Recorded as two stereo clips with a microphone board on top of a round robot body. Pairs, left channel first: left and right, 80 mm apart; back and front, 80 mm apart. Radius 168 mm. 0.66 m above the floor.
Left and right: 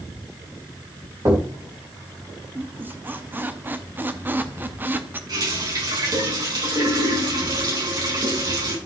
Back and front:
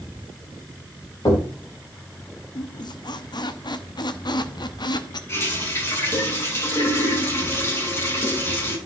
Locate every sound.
1.2 s knocking: 140° right, 3.5 m
2.5 s a squeak: 155° right, 1.0 m
5.3 s a running tap: 120° right, 6 m